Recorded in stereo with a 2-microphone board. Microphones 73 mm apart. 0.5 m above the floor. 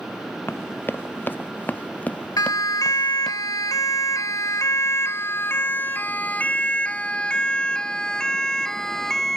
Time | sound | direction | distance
0.5 | running footsteps | 30° left (ahead or behind) | ?
2.4 | a siren | 55° left (ahead or behind) | ?